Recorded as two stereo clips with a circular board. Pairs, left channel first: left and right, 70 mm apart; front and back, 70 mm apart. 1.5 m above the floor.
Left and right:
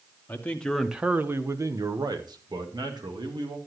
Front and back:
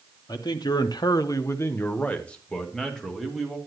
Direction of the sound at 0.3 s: 25° left.